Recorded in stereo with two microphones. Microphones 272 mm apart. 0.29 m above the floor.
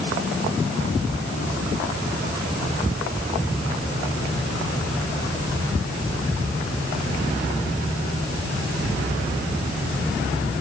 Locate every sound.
Only background noise.